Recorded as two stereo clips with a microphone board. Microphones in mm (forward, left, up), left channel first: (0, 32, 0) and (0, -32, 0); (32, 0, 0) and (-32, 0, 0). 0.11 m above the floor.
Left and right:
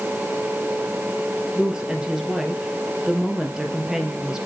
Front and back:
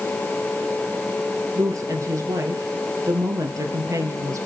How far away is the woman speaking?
About 2.5 m.